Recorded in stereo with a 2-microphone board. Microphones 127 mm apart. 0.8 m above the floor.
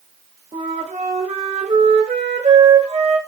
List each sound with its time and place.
0.5 s a flute: 55° right (ahead or behind), 0.9 m